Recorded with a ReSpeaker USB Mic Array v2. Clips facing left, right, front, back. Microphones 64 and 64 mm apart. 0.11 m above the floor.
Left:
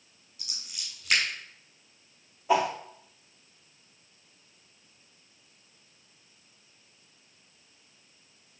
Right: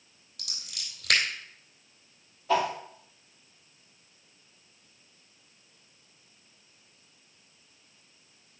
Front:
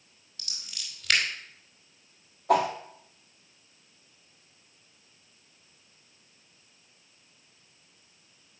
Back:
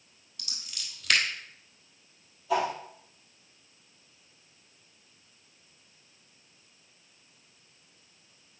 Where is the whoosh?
20° left, 1.4 m.